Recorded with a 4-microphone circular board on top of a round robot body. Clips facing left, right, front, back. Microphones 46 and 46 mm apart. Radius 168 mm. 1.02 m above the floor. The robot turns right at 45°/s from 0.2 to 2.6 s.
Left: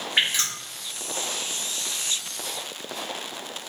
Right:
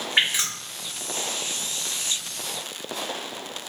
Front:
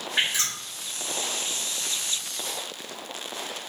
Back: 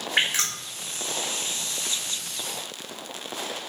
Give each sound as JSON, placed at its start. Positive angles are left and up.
{"t": 0.2, "sound": "dripping", "azimuth_deg": -175, "distance_m": 1.8}